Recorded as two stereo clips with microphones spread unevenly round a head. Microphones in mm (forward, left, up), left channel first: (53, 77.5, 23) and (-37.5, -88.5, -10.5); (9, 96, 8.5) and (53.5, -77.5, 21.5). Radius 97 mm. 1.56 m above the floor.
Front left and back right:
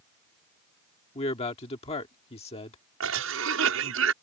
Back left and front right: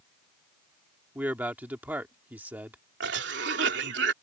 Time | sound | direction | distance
1.1 | a man speaking | 5° left | ?
3.0 | a cough | 110° right | ?